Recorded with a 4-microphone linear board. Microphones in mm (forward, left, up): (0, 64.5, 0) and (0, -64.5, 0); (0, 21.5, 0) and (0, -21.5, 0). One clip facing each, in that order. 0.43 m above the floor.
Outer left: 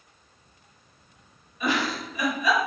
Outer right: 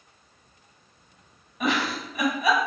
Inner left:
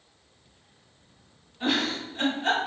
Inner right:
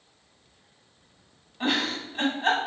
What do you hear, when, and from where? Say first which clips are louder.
1.6 s a giggle: outer right 1 dB, even; 75° right (ahead or behind), 1.2 m